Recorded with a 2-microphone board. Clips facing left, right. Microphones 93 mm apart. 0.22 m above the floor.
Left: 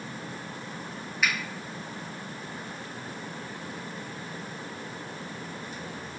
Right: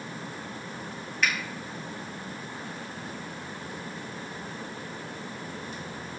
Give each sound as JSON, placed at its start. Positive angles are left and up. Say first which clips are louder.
{"t": 1.2, "sound": "a finger snap", "louder": "even", "side_deg": 5, "distance_m": 1.1}